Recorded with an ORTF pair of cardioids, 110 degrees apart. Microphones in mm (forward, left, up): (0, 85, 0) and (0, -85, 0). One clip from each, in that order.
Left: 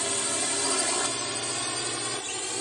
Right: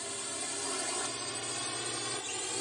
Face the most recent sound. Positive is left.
turn(degrees=35)